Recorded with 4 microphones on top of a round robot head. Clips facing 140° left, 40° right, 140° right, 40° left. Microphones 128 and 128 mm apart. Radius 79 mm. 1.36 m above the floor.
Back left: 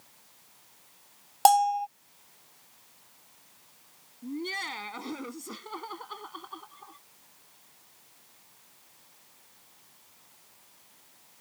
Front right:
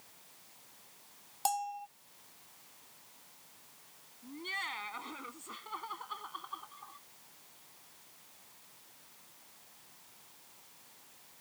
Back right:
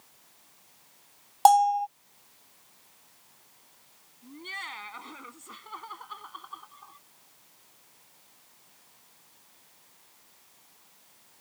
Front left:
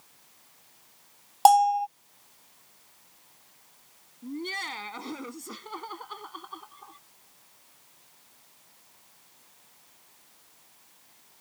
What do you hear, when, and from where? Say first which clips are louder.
1.4 s a bell: back left 15 dB, front left 1 dB; 125° left
4.2 s laughter: back left 9 dB, front left 8 dB; 90° left